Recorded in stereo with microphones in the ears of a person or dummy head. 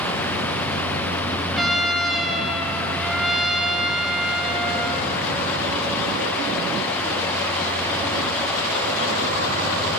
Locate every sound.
1.5 s a trumpet: centre (ahead or behind), 0.8 m